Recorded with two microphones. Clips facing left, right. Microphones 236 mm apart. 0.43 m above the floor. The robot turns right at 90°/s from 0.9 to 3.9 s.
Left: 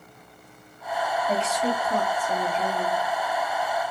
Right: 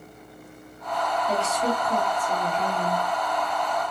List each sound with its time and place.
1.3 s a woman speaking: 145° right, 2 m; by 3.0 s 15° left, 2 m